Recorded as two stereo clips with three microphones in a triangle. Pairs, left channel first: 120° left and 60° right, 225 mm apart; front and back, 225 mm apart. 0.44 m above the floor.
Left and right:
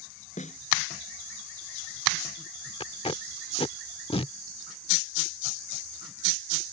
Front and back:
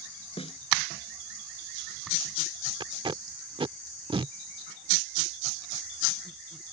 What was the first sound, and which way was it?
A snare drum, 65° left.